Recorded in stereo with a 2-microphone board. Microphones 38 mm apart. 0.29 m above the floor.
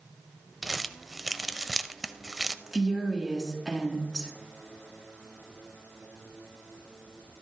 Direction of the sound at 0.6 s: 5° right (ahead or behind).